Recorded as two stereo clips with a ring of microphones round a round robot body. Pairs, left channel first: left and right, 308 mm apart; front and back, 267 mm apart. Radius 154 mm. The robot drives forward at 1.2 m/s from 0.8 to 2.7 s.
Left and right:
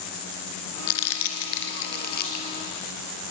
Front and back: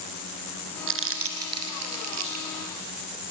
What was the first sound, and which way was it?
Crumpling, 135° left.